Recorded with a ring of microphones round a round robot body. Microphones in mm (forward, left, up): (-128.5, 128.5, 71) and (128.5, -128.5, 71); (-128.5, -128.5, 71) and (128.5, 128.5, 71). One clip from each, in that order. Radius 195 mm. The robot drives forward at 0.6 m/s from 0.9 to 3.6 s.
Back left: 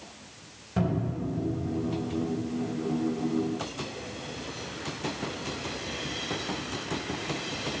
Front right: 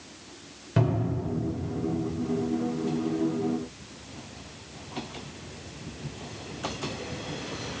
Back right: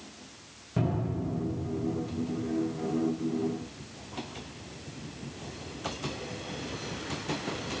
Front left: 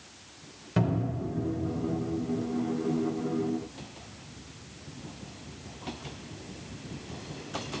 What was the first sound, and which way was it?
A cupboard door, 10° left.